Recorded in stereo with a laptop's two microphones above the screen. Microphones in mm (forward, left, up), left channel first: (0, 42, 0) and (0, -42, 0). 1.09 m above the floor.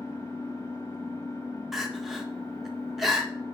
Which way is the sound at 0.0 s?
40° left (ahead or behind).